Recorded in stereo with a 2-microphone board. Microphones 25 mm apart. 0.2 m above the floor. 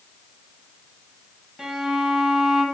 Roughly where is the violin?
Centre.